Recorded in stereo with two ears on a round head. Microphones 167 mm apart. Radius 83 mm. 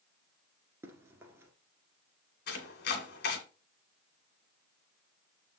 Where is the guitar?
No guitar in this recording.